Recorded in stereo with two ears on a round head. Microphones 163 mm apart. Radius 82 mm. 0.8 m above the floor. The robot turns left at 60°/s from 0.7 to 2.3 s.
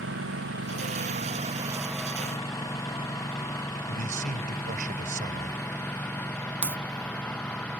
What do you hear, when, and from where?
0.0 s a lawn mower: 75° right (ahead or behind); by 7.8 s 10° left (ahead or behind)
3.9 s a man speaking: 45° right (ahead or behind)
6.6 s a crack: 10° right (ahead or behind)